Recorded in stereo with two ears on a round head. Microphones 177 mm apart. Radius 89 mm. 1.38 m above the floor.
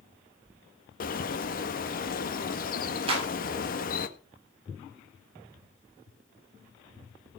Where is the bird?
45° left (ahead or behind), 1.6 m.